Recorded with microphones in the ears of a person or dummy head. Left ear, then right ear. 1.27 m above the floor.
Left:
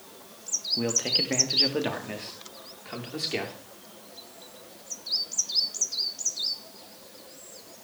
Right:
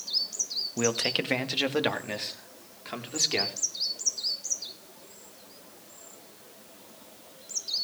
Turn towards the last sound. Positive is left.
turn(degrees=-20)  # may be behind; listen again after turning